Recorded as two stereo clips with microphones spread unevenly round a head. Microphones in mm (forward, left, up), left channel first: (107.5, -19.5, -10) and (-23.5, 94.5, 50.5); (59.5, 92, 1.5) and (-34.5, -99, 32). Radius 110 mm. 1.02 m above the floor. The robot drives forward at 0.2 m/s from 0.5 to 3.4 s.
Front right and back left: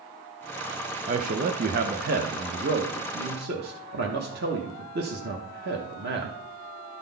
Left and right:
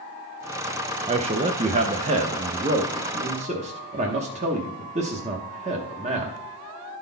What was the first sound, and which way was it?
A man speaking, 170° right.